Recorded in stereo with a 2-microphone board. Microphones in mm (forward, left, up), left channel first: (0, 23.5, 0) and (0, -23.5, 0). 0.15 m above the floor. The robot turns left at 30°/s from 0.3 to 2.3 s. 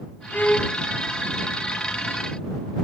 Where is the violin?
40° left (ahead or behind); by 0.8 s 25° left (ahead or behind).